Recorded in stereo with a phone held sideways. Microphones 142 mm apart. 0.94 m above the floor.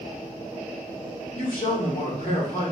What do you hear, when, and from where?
1.4 s a man speaking: 80° left, 2 m